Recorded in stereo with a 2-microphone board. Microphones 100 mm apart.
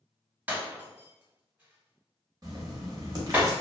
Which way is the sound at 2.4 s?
40° right (ahead or behind).